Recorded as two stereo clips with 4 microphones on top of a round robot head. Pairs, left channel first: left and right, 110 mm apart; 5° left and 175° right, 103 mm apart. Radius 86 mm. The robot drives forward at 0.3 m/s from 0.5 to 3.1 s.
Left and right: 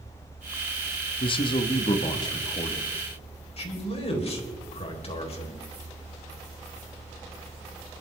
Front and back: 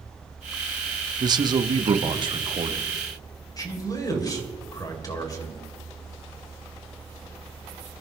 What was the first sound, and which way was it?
A man speaking, 140° left.